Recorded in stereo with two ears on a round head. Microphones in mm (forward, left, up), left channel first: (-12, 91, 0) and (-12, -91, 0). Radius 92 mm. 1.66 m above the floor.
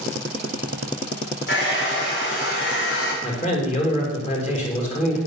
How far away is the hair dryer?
About 4.5 m.